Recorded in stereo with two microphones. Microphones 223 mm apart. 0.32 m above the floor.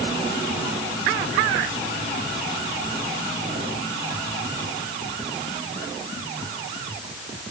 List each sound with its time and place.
Only background noise.